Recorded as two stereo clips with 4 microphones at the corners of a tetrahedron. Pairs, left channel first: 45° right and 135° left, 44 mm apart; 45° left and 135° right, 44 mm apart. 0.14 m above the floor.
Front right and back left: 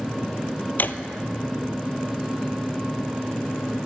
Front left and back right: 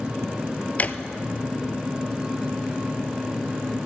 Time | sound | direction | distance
0.8 | a drawer | 5° right | 0.6 m